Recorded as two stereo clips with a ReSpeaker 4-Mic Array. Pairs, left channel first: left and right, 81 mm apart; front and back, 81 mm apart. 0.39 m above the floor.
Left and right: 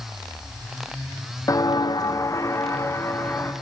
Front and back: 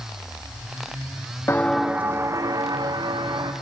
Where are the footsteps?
55° left, 0.6 m; by 3.5 s 150° left, 2 m.